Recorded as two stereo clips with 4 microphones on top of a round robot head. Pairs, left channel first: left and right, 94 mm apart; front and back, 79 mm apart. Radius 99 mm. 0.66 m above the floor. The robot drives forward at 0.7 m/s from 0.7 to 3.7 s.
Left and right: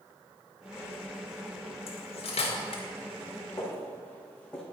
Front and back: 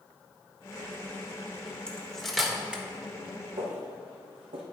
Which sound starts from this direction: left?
Cutlery clinking, at 1.9 s.